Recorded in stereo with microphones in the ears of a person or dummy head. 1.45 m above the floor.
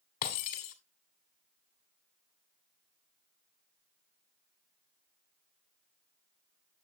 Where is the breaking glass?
50° left (ahead or behind), 1.9 m.